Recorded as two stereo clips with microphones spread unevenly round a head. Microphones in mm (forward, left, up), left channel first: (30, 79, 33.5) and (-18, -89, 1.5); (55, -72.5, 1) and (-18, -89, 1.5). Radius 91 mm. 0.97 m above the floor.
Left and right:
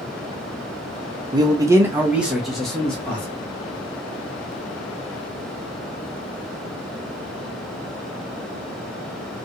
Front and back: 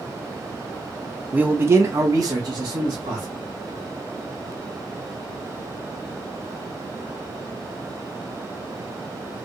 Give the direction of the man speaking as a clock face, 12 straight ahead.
4 o'clock.